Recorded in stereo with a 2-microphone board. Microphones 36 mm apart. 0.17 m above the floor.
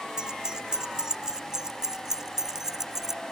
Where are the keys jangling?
20° right (ahead or behind); by 3.2 s 10° right (ahead or behind).